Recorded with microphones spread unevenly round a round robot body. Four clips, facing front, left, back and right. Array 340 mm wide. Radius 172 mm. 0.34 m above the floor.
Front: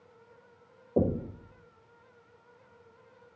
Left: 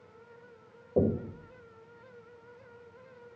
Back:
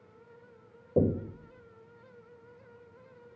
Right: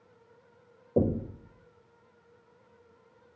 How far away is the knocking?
About 0.9 m.